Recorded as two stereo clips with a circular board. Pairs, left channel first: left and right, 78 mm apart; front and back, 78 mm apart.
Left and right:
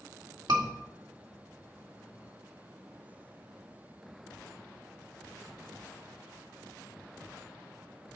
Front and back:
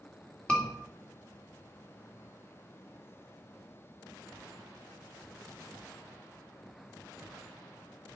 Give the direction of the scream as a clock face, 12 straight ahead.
3 o'clock.